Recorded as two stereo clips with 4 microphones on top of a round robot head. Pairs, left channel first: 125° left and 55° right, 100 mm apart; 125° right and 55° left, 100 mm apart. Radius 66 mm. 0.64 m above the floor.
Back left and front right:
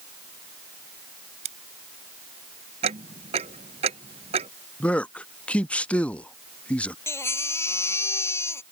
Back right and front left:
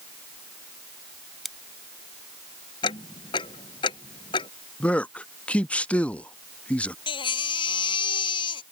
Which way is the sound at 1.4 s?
35° right.